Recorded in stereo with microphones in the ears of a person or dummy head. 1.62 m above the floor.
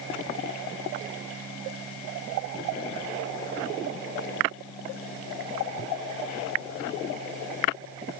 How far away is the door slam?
No door slam in this recording.